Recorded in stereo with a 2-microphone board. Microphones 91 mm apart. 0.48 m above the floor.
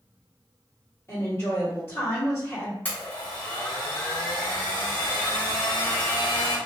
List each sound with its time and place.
1.1 s a woman speaking: 25° left (ahead or behind), 1.3 m
2.9 s a blender: 20° left (ahead or behind), 1.3 m